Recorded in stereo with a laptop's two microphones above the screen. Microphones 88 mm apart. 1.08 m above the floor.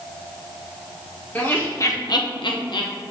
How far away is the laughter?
About 1.1 m.